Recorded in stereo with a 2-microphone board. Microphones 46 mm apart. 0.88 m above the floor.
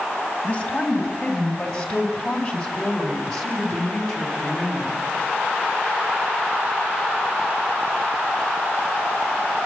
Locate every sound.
0.4 s a woman speaking: 25° left (ahead or behind), 5 m; by 5.0 s 5° left (ahead or behind), 6.5 m